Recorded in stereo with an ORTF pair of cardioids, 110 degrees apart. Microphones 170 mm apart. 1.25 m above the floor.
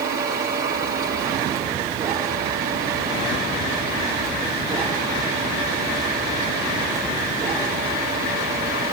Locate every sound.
0.0 s a machine running: 65° right, 6.5 m